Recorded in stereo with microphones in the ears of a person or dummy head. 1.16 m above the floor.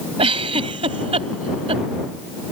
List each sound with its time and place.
0.2 s a giggle: 30° right (ahead or behind)